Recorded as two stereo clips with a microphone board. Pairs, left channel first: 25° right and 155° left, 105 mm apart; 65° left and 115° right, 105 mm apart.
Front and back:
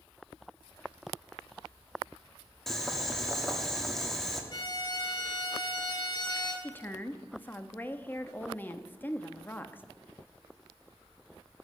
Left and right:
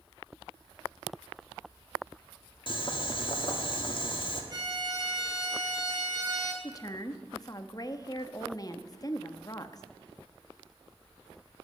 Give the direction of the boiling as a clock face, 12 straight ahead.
10 o'clock.